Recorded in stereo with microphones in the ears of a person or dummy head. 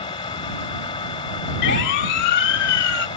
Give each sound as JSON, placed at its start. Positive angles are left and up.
{"t": 0.0, "sound": "a machine running", "side_deg": 25}
{"t": 1.6, "sound": "a siren", "side_deg": 65}